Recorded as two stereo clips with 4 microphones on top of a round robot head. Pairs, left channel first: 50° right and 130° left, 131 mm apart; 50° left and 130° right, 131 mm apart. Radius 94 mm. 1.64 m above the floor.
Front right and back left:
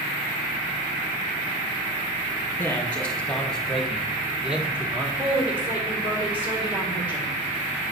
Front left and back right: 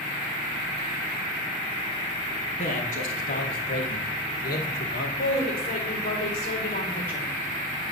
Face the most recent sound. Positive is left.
turn(degrees=50)